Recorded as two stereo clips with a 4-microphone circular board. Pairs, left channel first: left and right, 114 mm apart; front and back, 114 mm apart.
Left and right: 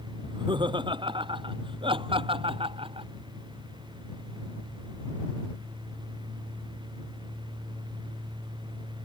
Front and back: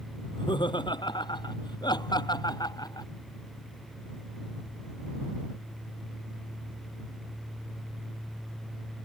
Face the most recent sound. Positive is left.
turn(degrees=-55)